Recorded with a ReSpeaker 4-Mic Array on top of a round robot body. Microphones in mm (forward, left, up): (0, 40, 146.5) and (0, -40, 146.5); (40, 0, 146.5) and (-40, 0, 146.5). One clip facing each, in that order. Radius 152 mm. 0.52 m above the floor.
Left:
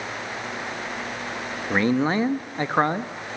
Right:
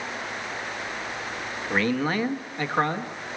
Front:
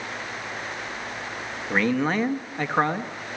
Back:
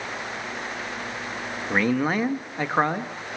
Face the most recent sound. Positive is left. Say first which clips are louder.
# left 3 dB, even
turn(degrees=105)